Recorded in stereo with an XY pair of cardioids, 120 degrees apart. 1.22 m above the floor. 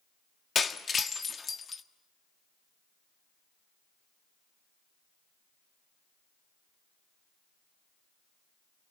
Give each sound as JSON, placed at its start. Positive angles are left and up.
{"t": 0.6, "sound": "breaking glass", "azimuth_deg": 30, "distance_m": 1.3}